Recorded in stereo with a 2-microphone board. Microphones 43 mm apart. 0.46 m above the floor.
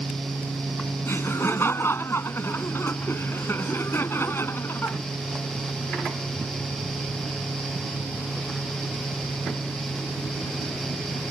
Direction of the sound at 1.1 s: 70° left (ahead or behind).